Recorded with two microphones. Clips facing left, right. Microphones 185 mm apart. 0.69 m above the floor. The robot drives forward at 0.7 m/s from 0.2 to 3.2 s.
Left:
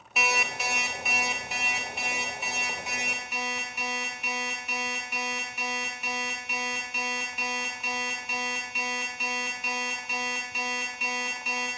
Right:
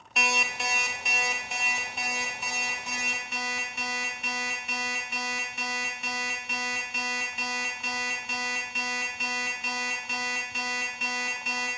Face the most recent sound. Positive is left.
turn(degrees=0)  # may be behind; listen again after turning